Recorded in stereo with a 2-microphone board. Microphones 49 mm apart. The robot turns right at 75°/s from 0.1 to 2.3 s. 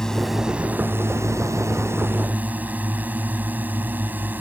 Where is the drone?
15° left (ahead or behind); by 4.4 s 40° right (ahead or behind).